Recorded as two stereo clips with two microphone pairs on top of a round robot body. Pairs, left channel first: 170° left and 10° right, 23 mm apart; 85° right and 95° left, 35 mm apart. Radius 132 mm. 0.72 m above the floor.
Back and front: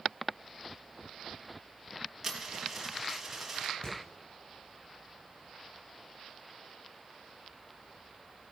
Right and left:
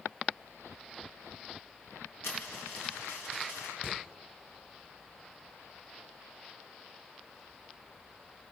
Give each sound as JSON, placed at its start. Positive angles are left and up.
{"t": 2.2, "sound": "a dropped coin", "azimuth_deg": -100, "distance_m": 3.0}
{"t": 3.8, "sound": "hammering", "azimuth_deg": 140, "distance_m": 6.0}